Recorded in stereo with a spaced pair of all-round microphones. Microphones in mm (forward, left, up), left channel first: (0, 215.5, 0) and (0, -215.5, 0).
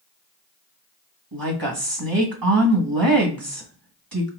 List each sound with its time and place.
1.3 s a woman speaking: 55° right (ahead or behind), 1.4 m